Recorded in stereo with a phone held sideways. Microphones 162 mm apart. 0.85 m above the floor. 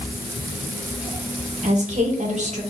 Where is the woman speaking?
45° right (ahead or behind), 0.9 m.